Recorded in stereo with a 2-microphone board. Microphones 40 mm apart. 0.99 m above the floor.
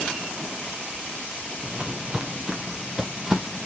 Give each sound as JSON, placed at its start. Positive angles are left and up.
{"t": 1.6, "sound": "footsteps", "side_deg": -30, "distance_m": 1.1}